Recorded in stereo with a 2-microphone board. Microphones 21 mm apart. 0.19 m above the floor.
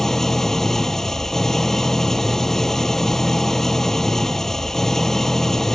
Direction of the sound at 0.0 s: 20° left (ahead or behind).